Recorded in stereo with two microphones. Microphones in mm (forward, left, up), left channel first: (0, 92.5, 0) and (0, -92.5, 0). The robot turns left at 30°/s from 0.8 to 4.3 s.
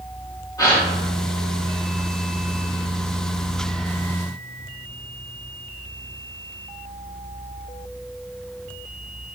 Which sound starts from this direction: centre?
A gasp, at 0.6 s.